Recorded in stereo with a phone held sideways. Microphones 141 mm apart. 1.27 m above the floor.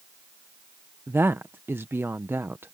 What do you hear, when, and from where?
1.1 s a woman speaking: 15° right (ahead or behind)